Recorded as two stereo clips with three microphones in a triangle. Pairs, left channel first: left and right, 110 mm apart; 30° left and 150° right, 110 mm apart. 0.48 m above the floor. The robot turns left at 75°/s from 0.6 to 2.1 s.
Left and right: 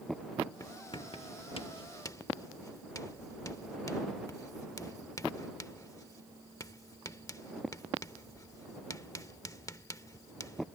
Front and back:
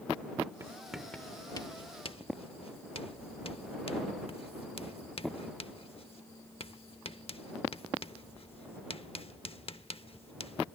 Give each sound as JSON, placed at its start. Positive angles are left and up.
{"t": 0.6, "sound": "writing", "azimuth_deg": 150}